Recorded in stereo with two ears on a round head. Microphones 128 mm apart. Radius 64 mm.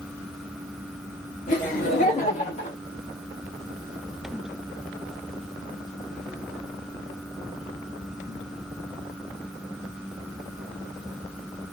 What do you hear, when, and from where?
1.5 s laughter: 60° left (ahead or behind), 2 m; by 2.8 s 40° left (ahead or behind), 1.4 m